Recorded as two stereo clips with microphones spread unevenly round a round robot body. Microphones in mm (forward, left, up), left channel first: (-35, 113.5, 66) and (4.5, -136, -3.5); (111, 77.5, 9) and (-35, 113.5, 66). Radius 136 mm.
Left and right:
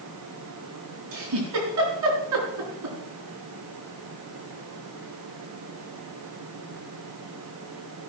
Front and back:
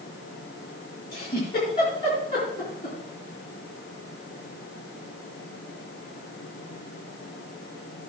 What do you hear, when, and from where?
1.1 s a giggle: 80° right, 4 m